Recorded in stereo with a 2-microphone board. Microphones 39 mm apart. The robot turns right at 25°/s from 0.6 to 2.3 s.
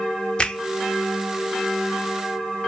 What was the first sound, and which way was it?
A finger snap, 20° left (ahead or behind).